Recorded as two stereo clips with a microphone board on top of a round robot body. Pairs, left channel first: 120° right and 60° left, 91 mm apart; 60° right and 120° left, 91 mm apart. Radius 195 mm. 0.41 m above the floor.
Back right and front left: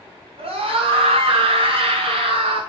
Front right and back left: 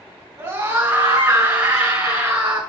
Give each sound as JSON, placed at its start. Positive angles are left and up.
{"t": 0.4, "sound": "a scream", "azimuth_deg": 60, "distance_m": 7.0}